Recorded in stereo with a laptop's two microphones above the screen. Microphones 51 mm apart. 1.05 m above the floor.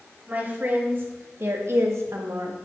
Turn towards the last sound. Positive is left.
turn(degrees=-65)  # may be behind; listen again after turning